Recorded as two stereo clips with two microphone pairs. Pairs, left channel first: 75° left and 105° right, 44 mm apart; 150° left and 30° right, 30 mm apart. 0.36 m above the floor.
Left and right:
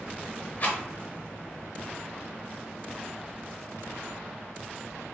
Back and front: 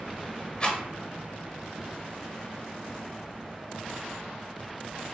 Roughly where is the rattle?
Left.